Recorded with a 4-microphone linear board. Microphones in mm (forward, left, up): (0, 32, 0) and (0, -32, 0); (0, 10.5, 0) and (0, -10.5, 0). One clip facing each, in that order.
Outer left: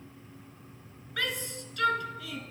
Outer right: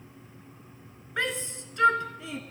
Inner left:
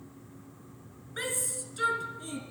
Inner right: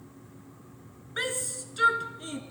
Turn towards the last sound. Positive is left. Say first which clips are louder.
# outer right 3 dB, inner right 2 dB
turn(degrees=-25)  # may be behind; listen again after turning